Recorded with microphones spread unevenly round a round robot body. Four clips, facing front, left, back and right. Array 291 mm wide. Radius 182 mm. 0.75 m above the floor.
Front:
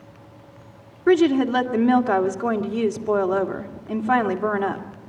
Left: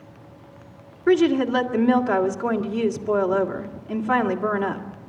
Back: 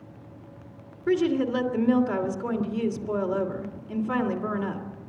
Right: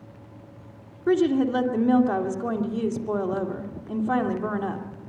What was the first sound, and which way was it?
A woman speaking, 15° left.